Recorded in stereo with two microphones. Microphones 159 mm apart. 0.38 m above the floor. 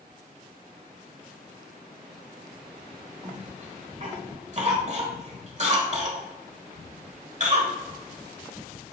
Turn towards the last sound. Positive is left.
turn(degrees=-45)  # may be behind; listen again after turning